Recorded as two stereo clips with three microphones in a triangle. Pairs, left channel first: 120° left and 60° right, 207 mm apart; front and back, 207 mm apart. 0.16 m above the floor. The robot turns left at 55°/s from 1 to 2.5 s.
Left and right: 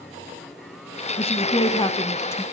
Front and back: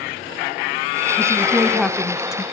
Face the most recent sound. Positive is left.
turn(degrees=50)